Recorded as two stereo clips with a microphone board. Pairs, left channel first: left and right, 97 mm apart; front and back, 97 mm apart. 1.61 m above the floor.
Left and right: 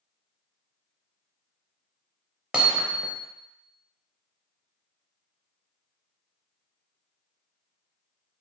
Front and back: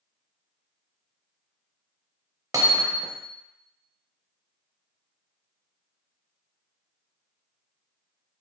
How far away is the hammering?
About 0.7 m.